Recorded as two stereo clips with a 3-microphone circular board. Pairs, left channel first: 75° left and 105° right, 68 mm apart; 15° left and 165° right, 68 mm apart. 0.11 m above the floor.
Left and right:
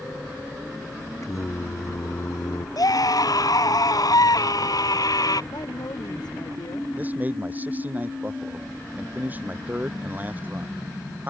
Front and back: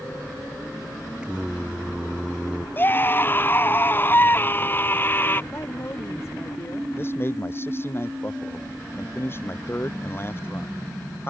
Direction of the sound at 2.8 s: 70° left.